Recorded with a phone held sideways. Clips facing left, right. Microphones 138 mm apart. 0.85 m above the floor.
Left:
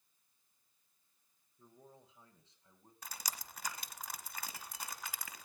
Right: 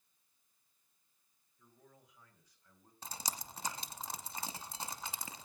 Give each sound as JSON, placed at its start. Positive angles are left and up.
{"t": 1.6, "sound": "a man speaking", "side_deg": 35, "distance_m": 3.0}
{"t": 3.0, "sound": "dripping", "side_deg": -30, "distance_m": 1.1}